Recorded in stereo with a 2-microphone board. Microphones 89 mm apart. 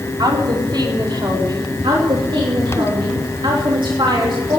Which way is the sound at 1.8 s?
65° right (ahead or behind).